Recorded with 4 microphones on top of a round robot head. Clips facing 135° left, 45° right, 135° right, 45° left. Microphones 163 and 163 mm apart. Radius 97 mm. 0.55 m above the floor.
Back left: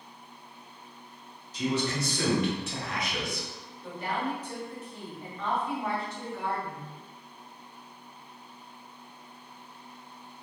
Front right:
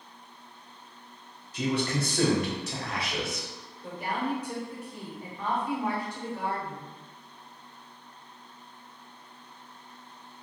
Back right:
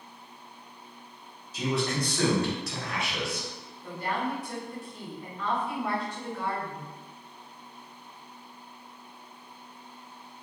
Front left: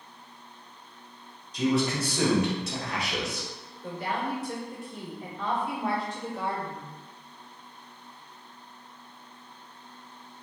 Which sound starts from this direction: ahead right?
A man speaking, at 1.5 s.